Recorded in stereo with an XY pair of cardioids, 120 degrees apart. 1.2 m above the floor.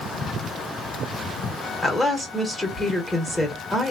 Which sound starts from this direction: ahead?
A woman speaking, at 1.8 s.